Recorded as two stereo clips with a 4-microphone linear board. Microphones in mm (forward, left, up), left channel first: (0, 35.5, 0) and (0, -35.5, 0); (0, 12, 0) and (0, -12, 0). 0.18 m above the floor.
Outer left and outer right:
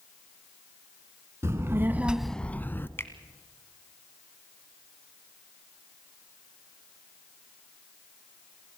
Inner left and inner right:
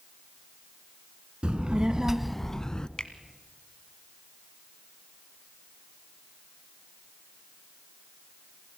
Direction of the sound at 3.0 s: 35° left (ahead or behind).